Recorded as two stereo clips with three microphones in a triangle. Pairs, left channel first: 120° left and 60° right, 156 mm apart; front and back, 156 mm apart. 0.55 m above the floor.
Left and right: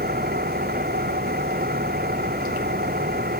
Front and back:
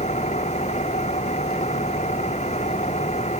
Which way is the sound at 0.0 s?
45° right.